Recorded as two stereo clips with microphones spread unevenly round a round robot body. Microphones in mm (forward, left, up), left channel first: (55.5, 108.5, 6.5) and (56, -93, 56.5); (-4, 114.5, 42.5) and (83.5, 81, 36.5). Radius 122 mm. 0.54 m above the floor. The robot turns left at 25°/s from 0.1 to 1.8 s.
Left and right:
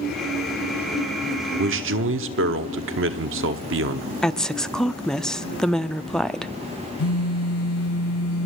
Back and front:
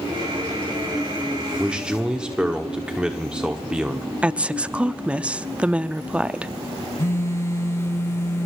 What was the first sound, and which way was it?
A man speaking, 90° right.